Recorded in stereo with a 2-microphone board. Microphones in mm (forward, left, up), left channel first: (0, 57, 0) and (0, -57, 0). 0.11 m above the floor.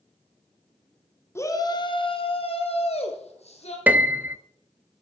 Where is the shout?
25° left (ahead or behind), 1.1 m; by 3.8 s 70° left (ahead or behind), 3 m.